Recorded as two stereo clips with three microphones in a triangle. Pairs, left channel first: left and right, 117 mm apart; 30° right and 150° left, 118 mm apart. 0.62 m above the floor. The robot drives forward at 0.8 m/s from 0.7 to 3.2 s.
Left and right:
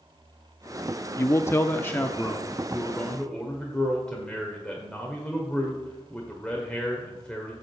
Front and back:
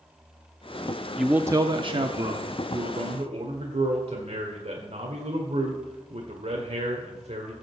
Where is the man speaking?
60° left, 0.5 m; by 7.5 s 170° left, 1.6 m.